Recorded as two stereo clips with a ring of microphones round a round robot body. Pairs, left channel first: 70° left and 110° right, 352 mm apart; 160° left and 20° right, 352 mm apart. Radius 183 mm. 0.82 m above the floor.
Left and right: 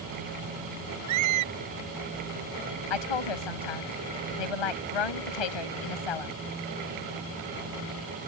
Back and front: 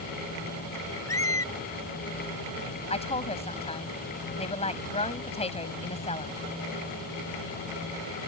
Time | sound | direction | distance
1.1 | a squeak | 120° right | ?
2.9 | a woman speaking | 85° left | ?